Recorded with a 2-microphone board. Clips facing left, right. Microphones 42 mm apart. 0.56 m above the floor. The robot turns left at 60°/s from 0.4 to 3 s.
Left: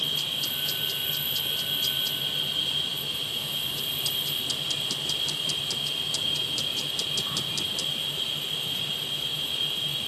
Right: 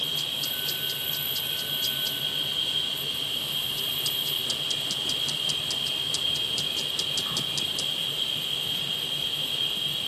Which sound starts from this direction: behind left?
An insect, at 0.0 s.